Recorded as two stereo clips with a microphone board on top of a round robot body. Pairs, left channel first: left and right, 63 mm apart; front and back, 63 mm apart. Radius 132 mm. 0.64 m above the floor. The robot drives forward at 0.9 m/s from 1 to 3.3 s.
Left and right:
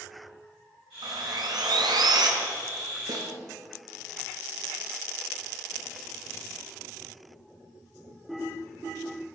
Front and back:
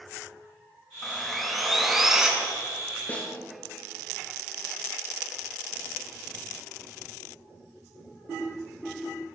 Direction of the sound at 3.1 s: 65° right.